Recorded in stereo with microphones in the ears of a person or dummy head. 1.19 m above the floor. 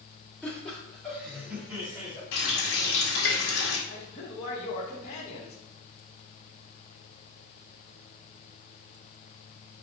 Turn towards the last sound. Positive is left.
turn(degrees=45)  # may be behind; listen again after turning